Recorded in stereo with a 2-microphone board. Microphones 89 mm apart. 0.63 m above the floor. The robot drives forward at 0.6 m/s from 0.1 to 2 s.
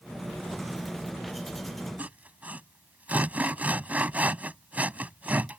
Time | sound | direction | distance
2.0 | sawing | 15° right (ahead or behind) | ?